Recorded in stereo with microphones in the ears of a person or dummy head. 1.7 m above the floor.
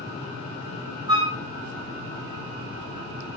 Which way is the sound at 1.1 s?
20° right (ahead or behind).